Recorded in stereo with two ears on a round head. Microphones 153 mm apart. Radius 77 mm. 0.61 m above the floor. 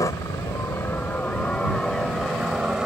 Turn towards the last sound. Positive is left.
turn(degrees=-5)  # may be behind; listen again after turning